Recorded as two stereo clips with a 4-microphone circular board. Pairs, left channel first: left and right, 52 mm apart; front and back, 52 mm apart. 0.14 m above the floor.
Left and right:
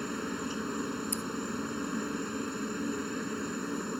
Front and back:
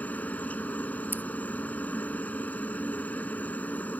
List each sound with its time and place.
0.0 s a helicopter: 5° right
1.1 s scissors: 130° left